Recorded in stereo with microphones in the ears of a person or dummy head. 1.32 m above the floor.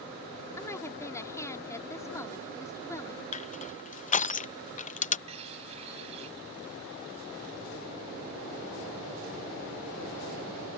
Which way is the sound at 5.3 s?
30° right (ahead or behind).